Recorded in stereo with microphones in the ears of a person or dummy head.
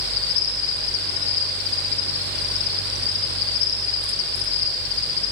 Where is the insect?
5° right (ahead or behind), 8.5 m.